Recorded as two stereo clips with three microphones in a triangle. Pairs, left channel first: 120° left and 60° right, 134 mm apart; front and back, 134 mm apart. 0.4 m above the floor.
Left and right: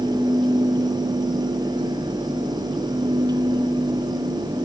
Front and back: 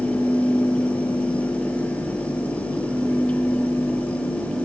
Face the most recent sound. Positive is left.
No sound to turn to.